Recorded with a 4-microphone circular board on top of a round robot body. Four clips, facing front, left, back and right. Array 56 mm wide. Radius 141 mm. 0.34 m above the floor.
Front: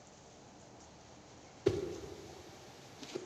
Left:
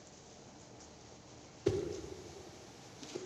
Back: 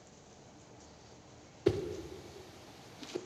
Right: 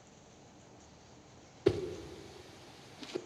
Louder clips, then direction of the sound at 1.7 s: Right 3 dB, back 2 dB; 105° right.